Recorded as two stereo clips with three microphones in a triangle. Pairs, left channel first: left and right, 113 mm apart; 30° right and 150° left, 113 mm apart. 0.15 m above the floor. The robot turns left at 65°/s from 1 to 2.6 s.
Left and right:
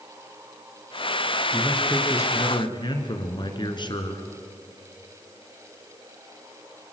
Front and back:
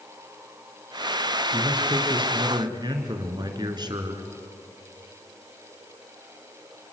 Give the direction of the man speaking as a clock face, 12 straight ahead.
6 o'clock.